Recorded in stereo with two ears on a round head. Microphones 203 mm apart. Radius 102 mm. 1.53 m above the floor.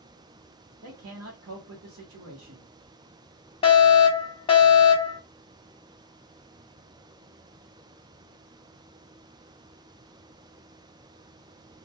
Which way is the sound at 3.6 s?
25° left (ahead or behind).